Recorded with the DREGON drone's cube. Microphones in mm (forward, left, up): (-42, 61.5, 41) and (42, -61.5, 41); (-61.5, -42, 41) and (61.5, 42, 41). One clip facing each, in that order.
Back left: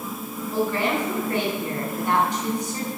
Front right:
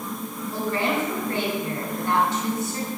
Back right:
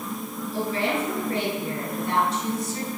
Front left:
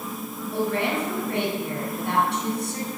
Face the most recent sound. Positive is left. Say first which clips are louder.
# back left 2 dB, front left 1 dB
turn(degrees=50)